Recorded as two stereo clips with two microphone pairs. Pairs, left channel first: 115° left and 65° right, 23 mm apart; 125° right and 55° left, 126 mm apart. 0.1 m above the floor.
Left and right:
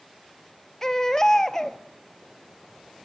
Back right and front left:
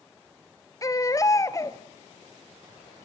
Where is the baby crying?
175° left, 1.1 m.